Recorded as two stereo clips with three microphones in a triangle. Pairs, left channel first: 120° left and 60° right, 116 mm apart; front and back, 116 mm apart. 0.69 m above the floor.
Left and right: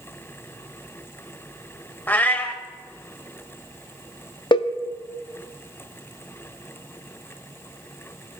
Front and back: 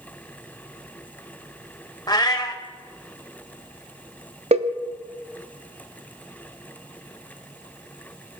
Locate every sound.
2.1 s a cat meowing: 50° left, 0.7 m
4.5 s a cowbell: 165° left, 0.5 m